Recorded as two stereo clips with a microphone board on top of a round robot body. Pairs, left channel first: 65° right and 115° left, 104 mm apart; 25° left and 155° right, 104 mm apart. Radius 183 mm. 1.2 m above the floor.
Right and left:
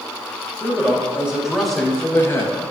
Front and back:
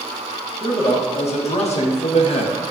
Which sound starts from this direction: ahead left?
A man speaking, at 0.6 s.